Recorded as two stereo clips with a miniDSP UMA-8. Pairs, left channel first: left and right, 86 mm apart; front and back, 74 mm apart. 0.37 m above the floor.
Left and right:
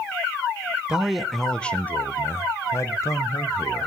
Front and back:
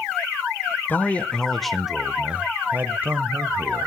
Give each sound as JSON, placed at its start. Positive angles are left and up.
{"t": 0.9, "sound": "a man speaking", "azimuth_deg": -20, "distance_m": 0.9}